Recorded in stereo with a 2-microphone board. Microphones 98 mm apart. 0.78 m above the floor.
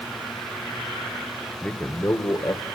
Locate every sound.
1.6 s a man speaking: 10° left (ahead or behind), 1.4 m; by 2.7 s 45° left (ahead or behind), 2.5 m